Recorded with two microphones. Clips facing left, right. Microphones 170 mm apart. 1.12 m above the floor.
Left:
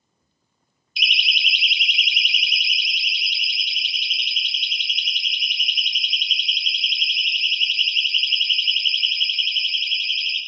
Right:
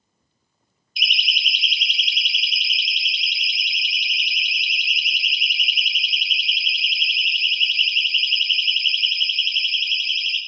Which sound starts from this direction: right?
A siren, at 1.0 s.